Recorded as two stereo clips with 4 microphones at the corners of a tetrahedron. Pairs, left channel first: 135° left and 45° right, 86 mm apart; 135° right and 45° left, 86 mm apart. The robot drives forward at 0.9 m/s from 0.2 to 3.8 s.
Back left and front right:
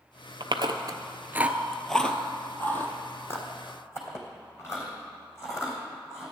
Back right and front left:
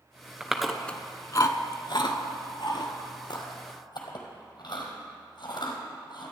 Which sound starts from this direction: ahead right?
Chewing, at 0.4 s.